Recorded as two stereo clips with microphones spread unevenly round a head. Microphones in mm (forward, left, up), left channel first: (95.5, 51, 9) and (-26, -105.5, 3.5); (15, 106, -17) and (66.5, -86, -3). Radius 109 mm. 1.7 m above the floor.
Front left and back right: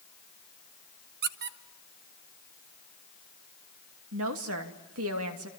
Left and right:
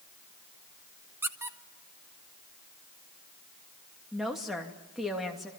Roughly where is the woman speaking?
Behind.